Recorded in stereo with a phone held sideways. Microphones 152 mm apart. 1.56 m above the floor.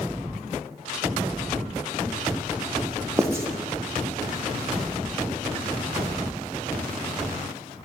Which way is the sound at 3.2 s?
20° right (ahead or behind).